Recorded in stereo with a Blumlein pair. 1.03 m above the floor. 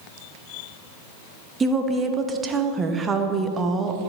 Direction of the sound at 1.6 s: 15° right.